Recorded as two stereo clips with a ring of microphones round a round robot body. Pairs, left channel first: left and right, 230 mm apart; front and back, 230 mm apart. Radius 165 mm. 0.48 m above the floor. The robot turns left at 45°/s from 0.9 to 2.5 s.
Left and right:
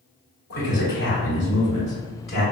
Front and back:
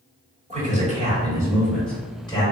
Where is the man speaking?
130° left, 1.4 m; by 2.4 s 60° left, 1.4 m.